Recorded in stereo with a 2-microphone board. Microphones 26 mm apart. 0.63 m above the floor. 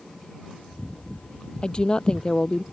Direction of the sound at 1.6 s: 30° left (ahead or behind).